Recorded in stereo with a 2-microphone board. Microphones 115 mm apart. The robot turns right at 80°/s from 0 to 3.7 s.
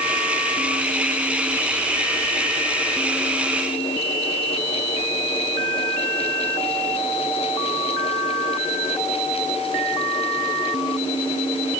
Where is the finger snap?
No finger snap in this recording.